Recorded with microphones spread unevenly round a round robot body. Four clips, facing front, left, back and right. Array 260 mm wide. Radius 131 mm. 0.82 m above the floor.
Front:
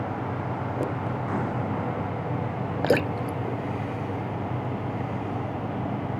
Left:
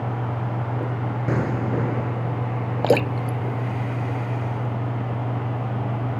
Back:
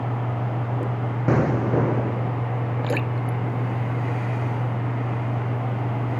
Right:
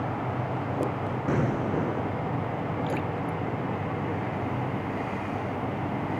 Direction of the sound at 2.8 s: 65° left.